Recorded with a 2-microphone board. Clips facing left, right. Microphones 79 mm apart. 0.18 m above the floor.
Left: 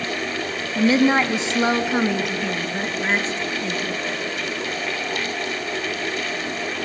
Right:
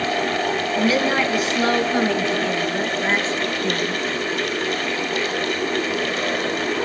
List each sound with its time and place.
0.8 s a woman speaking: 35° left (ahead or behind), 1.8 m; by 4.0 s 5° right (ahead or behind), 3.5 m